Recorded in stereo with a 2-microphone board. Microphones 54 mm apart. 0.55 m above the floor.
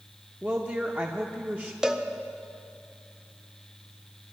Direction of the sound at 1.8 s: 15° right (ahead or behind).